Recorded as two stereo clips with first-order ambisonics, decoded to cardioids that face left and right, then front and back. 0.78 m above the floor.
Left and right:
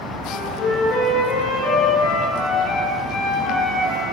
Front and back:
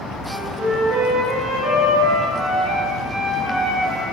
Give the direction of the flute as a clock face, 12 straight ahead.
8 o'clock.